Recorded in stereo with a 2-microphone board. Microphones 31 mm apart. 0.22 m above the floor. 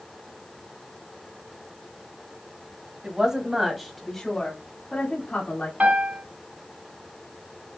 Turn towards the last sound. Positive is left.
turn(degrees=-45)  # may be behind; listen again after turning